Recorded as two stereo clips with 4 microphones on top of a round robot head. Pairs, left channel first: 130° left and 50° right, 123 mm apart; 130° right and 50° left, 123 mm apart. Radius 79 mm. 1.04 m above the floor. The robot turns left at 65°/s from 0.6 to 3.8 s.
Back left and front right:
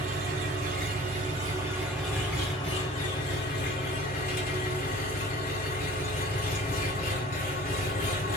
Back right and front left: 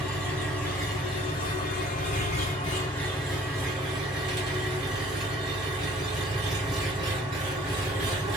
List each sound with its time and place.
0.0 s an engine running: 45° right, 1.5 m; by 8.4 s 105° left, 1.5 m